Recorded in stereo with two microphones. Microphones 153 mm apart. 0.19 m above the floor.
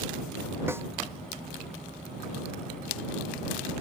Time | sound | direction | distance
0.7 | a snare drum | 15° right (ahead or behind) | ?